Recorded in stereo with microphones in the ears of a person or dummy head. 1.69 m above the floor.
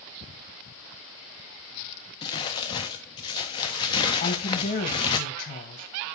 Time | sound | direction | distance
2.2 | crumpling | 20° left (ahead or behind) | 0.5 m
4.2 | a woman speaking | 50° left (ahead or behind) | 1.3 m